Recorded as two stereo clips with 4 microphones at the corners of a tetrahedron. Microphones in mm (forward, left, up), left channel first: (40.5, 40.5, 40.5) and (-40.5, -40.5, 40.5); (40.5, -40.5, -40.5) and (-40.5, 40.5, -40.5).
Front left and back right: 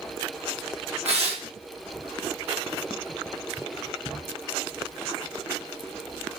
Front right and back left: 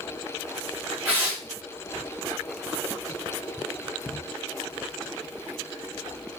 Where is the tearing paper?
150° right, 1.8 m.